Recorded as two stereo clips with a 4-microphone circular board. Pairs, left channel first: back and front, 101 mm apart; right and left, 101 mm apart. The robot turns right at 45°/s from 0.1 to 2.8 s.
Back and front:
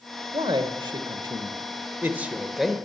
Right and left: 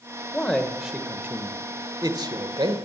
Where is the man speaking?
15° right, 1.3 m; by 2.8 s 95° left, 1.3 m.